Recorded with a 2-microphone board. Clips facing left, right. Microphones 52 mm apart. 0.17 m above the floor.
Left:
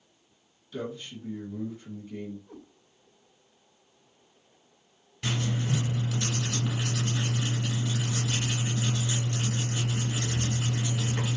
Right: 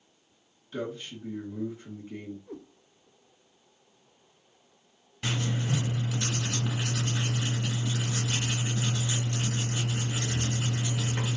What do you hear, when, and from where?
0.7 s a man speaking: 25° right (ahead or behind), 1.6 m
2.5 s a cat meowing: 55° right (ahead or behind), 1.5 m
5.2 s writing: 15° right (ahead or behind), 2 m